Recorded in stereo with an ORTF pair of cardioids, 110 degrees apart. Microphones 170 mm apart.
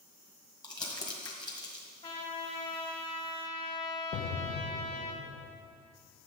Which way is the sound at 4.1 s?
65° left.